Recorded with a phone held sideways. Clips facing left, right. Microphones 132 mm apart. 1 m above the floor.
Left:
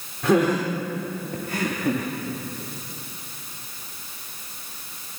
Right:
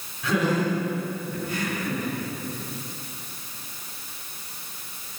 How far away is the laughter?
About 3.5 m.